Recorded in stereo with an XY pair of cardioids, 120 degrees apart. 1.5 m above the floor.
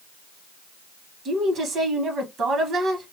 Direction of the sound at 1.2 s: 50° right.